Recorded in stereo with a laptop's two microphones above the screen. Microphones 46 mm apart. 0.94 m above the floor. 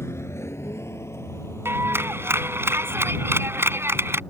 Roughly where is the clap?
Right.